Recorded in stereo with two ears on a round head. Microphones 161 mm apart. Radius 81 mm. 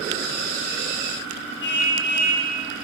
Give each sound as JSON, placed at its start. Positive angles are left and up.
{"t": 1.6, "sound": "a car horn", "side_deg": 70, "distance_m": 9.5}